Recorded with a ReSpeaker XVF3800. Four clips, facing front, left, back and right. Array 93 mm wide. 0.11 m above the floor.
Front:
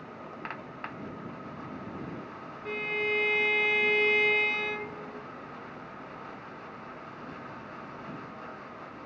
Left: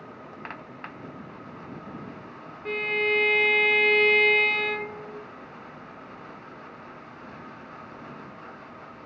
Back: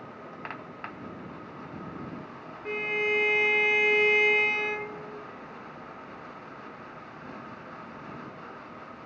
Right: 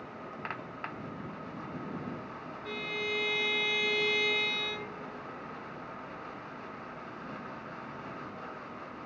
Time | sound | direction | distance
2.6 | a violin | 105° left | ?